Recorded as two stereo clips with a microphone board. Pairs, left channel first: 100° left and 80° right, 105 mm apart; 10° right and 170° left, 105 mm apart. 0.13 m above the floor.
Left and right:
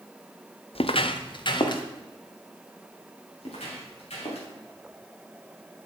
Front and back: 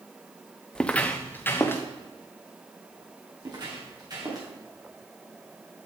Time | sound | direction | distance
0.8 | footsteps | 70° left | 0.6 m
3.4 | footsteps | 120° left | 4 m